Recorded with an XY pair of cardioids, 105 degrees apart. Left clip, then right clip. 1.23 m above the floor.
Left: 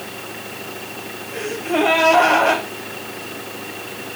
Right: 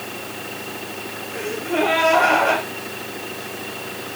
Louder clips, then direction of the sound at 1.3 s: Left 2 dB; 35° left.